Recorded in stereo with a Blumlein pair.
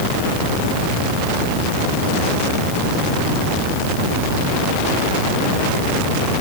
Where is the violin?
No violin in this recording.